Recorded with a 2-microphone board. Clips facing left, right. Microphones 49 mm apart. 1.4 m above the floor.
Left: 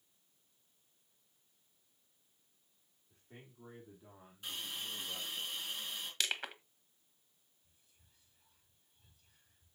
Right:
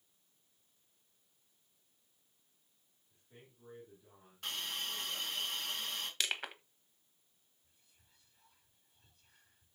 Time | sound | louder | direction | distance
3.1 | a man speaking | left 3 dB | 40° left (ahead or behind) | 3.5 m
4.4 | a hiss | right 3 dB | 75° right (ahead or behind) | 3.5 m
6.2 | crushing | left 1 dB | 5° right (ahead or behind) | 1.1 m
7.6 | whispering | right 2 dB | 80° right | 5 m